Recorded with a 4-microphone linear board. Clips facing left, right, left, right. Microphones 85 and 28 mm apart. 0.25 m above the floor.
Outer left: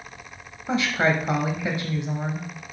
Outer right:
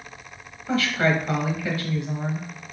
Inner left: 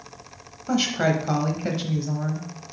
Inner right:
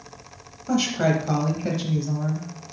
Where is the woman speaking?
20° left (ahead or behind), 1.1 m.